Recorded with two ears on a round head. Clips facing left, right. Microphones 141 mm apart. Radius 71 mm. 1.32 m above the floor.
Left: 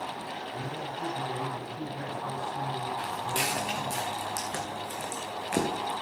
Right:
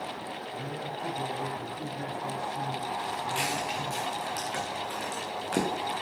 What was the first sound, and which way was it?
A man speaking, 20° left (ahead or behind).